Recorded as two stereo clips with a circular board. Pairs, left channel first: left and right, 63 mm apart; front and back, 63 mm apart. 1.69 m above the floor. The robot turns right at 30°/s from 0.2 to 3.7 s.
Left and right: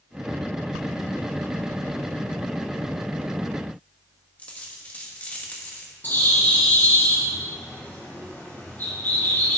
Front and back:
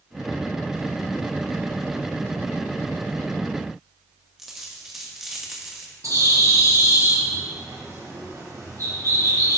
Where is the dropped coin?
105° left, 1.1 m.